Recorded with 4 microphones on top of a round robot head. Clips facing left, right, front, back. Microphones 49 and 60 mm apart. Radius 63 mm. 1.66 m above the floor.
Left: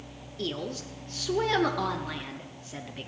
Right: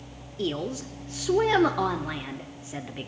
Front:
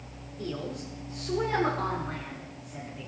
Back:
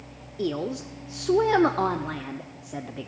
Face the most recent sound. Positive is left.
turn(degrees=-165)